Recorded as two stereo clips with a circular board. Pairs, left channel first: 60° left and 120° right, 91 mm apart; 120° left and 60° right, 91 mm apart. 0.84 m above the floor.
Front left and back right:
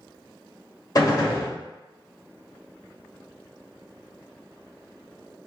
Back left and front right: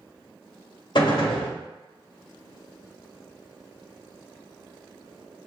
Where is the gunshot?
100° left, 1.1 m.